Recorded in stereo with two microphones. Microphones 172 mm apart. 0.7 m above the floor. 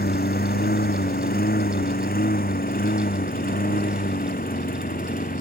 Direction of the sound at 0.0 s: 65° left (ahead or behind).